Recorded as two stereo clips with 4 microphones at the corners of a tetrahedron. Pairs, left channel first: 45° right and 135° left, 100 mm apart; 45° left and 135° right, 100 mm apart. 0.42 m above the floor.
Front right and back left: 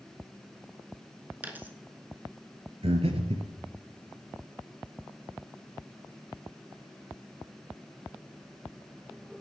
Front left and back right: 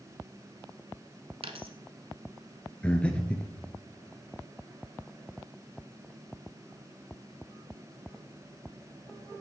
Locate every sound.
1.4 s a dropped coin: 155° right, 0.9 m
2.8 s breathing: 125° left, 1.2 m